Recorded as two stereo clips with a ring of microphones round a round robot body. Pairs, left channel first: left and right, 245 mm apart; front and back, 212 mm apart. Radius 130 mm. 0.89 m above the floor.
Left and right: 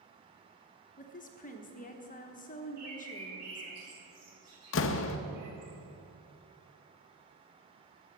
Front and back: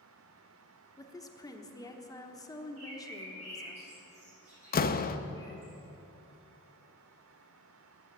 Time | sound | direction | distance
1.0 | a woman speaking | 60° left | 1.0 m
2.8 | a bird | 115° right | 4.5 m
4.7 | a door slam | 50° left | 0.6 m